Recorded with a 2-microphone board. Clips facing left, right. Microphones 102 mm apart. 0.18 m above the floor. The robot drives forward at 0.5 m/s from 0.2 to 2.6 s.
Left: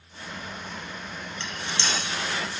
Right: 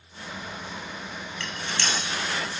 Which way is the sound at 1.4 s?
20° left (ahead or behind).